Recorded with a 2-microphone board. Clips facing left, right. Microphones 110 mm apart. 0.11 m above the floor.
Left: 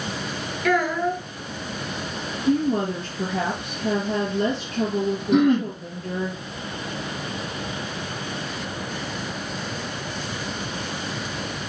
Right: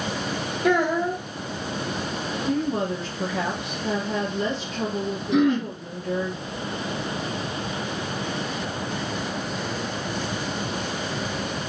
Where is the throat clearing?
45° left (ahead or behind), 3 m.